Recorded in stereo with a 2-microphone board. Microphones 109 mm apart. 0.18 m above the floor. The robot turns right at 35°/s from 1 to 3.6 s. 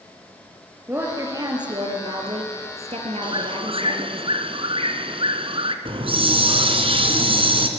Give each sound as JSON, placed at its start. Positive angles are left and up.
{"t": 0.9, "sound": "a woman speaking", "azimuth_deg": -155, "distance_m": 4.0}
{"t": 3.2, "sound": "a bird", "side_deg": -50, "distance_m": 1.7}
{"t": 5.8, "sound": "a hiss", "side_deg": -55, "distance_m": 2.0}